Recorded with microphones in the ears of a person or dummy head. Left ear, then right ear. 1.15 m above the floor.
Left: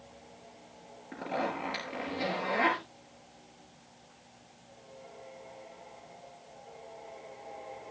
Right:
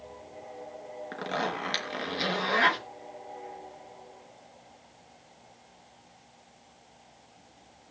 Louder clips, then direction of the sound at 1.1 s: Right 2 dB; 50° right (ahead or behind).